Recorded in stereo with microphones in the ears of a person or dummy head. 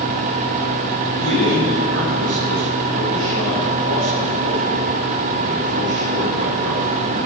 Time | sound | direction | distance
1.2 | a man speaking | 85° right | 7 m